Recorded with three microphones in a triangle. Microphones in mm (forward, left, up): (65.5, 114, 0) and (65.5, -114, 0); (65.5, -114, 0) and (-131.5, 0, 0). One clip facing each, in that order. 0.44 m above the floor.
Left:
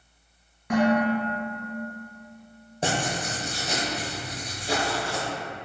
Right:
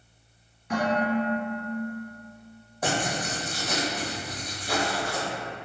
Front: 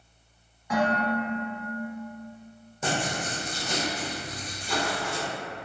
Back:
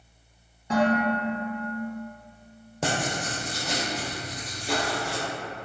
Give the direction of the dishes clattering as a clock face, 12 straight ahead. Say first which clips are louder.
Left 4 dB, back 3 dB; 9 o'clock.